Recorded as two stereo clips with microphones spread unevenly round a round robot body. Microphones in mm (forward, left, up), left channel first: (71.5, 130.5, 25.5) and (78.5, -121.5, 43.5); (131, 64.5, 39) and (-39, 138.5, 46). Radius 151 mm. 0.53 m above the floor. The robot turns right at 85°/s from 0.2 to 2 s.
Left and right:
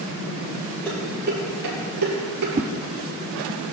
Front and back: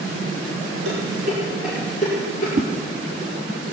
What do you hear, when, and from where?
0.8 s dishes clattering: 175° left, 7.5 m; by 2.5 s 90° right, 7.5 m
2.5 s a whoosh: 150° right, 0.8 m